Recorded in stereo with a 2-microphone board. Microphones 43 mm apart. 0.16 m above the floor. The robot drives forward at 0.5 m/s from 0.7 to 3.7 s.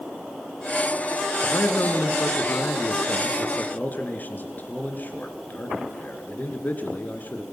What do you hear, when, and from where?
1.5 s a man speaking: 55° left (ahead or behind), 2 m; by 7.4 s 45° left (ahead or behind), 2.5 m